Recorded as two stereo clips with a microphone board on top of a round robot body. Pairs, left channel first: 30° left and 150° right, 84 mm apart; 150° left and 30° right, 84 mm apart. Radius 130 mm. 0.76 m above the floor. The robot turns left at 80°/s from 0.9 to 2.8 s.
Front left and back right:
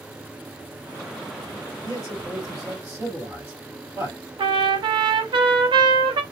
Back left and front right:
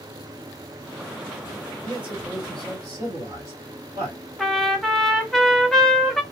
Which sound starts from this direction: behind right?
A trumpet, at 4.4 s.